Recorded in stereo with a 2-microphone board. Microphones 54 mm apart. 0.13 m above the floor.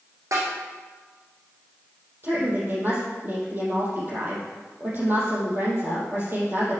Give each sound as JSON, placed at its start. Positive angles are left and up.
{"t": 0.3, "sound": "a snare drum", "side_deg": -75, "distance_m": 4.0}
{"t": 2.2, "sound": "a woman speaking", "side_deg": -40, "distance_m": 5.0}